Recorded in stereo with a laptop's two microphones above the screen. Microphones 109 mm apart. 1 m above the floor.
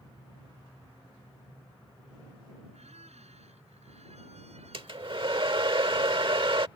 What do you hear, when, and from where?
2.7 s a squeak: 85° right
4.7 s a hair dryer: 55° right (ahead or behind)